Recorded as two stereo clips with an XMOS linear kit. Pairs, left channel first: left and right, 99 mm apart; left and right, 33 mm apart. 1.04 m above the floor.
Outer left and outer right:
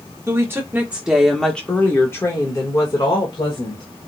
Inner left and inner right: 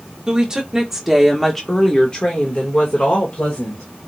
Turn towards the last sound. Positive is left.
turn(degrees=65)  # may be behind; listen again after turning